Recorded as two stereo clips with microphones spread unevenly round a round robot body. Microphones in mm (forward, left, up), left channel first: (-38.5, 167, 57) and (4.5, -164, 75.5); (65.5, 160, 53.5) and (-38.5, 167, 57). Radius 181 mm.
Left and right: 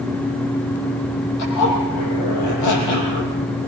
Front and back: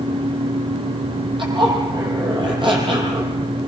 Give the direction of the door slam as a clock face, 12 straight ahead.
I don't hear a door slam.